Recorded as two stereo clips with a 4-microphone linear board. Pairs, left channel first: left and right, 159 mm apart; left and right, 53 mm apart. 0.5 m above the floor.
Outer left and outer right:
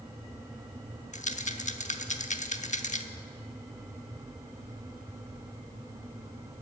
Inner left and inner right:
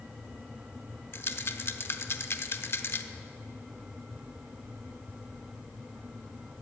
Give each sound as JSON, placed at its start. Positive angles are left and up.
{"t": 1.1, "sound": "a rattle", "side_deg": 50, "distance_m": 0.8}